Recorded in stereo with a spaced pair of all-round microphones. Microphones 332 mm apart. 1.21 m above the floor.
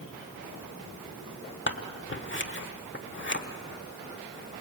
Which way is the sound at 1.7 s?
35° left (ahead or behind).